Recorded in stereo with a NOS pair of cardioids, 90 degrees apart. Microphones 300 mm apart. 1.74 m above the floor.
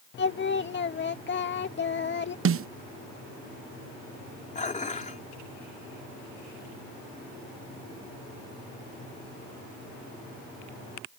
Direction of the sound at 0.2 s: 40° left.